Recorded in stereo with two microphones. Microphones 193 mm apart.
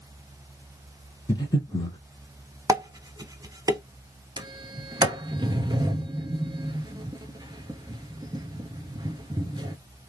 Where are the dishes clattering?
20° right (ahead or behind), 0.7 m.